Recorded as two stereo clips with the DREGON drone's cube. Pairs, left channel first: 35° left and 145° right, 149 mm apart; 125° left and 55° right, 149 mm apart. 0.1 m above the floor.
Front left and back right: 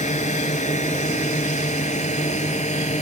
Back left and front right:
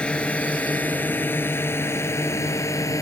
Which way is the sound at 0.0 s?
45° left.